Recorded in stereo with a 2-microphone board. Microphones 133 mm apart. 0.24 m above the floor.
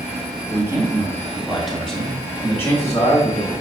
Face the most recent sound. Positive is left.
turn(degrees=35)  # may be behind; listen again after turning